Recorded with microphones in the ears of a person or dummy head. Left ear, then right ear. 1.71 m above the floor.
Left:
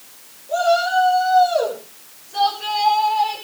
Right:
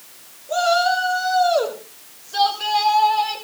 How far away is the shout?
About 6 m.